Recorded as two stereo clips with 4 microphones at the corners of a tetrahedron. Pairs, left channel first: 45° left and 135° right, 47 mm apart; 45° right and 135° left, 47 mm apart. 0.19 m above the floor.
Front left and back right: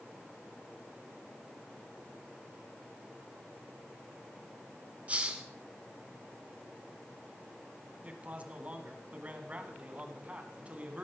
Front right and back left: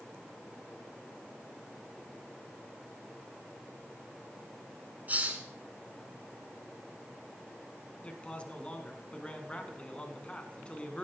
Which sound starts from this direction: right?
A man speaking, at 8.0 s.